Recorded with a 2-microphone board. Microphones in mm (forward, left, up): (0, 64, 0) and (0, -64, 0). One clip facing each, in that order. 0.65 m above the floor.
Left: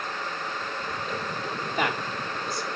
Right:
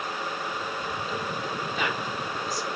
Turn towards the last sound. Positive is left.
turn(degrees=65)  # may be behind; listen again after turning